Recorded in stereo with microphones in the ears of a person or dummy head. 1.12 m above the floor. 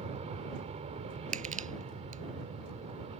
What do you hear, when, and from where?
0.0 s an aircraft: 30° right (ahead or behind)
1.3 s crushing: 40° right (ahead or behind)